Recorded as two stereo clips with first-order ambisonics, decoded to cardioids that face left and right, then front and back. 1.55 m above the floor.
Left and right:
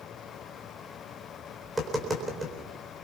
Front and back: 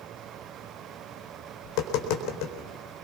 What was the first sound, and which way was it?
Tapping, 10° right.